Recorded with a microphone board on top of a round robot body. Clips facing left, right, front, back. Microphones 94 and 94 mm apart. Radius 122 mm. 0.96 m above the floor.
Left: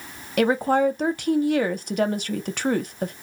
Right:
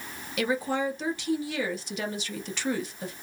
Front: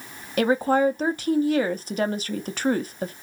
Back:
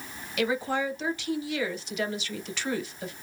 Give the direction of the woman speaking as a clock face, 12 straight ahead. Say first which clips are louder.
Left 8 dB, front 8 dB; 10 o'clock.